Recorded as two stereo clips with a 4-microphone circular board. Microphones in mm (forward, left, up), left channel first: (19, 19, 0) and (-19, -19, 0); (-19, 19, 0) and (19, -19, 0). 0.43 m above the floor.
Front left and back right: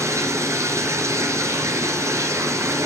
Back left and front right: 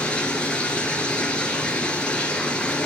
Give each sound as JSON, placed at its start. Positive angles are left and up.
{"t": 0.0, "sound": "running water", "azimuth_deg": -155, "distance_m": 3.5}